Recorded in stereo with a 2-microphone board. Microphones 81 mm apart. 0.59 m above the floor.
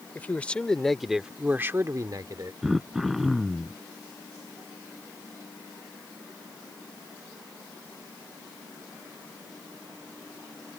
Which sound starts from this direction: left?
A man speaking, at 0.1 s.